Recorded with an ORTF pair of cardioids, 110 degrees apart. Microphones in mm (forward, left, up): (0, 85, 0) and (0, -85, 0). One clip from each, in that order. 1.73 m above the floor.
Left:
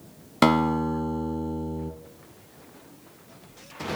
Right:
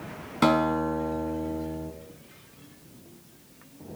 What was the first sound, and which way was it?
A guitar, 40° left.